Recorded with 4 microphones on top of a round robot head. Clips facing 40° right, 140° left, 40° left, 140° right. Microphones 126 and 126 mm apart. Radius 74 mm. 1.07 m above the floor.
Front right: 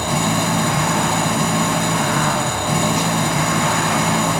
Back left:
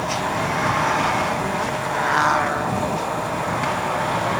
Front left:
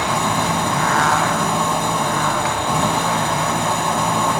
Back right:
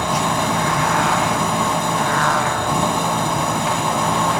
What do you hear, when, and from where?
0.0 s an engine running: 50° right